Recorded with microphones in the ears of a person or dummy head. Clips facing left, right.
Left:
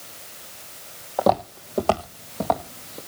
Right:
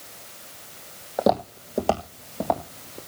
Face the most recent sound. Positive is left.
turn(degrees=5)  # may be behind; listen again after turning